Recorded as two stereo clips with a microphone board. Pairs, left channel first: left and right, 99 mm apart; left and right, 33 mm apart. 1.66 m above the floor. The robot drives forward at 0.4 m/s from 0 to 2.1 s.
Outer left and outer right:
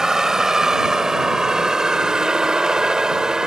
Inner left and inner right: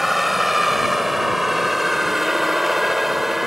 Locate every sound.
0.0 s a vehicle: 5° right (ahead or behind); by 3.5 s 10° right (ahead or behind)